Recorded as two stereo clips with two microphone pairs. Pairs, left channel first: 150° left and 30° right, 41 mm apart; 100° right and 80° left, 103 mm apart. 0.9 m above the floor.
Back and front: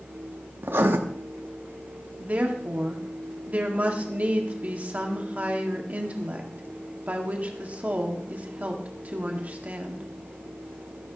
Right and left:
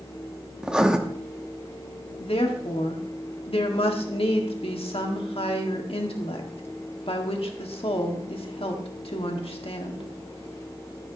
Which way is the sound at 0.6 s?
5° right.